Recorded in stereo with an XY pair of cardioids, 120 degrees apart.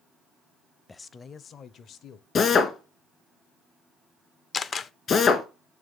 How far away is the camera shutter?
About 0.6 m.